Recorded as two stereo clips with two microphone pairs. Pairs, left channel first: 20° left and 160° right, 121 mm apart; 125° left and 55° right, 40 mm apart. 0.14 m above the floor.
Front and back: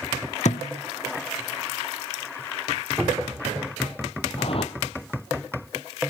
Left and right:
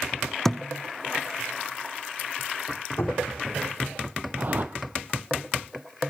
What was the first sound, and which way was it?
A thud, 40° left.